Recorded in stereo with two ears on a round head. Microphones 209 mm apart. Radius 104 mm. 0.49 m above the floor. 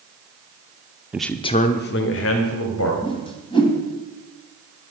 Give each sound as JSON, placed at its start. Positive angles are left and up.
{"t": 1.1, "sound": "a man speaking", "side_deg": -5, "distance_m": 0.7}
{"t": 3.0, "sound": "a whoosh", "side_deg": 20, "distance_m": 2.0}